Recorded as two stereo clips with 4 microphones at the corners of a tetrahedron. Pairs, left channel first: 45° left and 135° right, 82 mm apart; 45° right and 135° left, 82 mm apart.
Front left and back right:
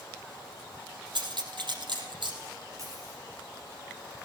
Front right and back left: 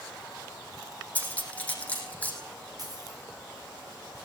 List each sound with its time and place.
1.1 s cutlery clinking: 115° right, 3.5 m
2.8 s a dropped coin: 175° left, 5 m